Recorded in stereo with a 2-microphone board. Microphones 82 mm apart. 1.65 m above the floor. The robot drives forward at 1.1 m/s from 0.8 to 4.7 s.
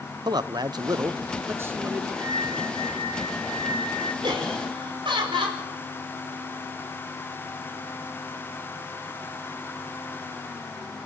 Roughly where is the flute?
Right.